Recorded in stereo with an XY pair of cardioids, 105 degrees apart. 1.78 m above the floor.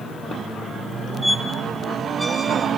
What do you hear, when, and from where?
1.2 s a squeak: 5° right, 2 m